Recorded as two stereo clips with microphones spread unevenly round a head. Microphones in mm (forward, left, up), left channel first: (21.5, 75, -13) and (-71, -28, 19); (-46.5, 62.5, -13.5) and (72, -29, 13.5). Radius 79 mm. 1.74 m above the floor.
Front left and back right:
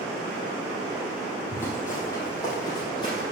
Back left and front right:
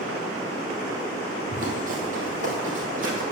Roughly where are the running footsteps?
Ahead right.